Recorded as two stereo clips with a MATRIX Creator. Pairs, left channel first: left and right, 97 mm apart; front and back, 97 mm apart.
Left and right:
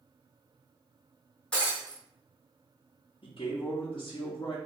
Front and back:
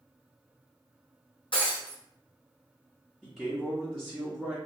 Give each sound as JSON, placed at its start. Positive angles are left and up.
{"t": 1.5, "sound": "breaking glass", "azimuth_deg": 10, "distance_m": 1.7}
{"t": 3.2, "sound": "a man speaking", "azimuth_deg": 90, "distance_m": 0.7}